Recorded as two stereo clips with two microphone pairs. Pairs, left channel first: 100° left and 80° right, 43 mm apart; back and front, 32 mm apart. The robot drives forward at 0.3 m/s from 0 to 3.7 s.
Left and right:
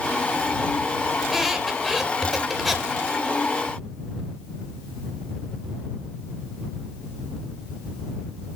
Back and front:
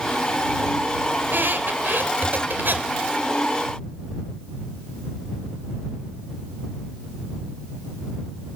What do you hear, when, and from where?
1.2 s a squeak: 5° left, 3 m